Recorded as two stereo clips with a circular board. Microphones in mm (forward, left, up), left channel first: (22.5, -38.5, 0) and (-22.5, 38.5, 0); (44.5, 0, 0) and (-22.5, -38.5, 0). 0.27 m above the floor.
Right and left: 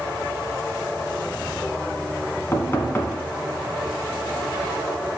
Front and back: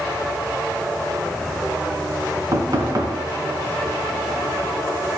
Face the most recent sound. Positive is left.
turn(degrees=-120)